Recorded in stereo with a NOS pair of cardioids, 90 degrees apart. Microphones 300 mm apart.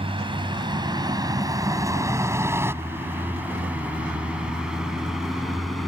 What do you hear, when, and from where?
0.0 s a vehicle: 15° right; by 5.9 s straight ahead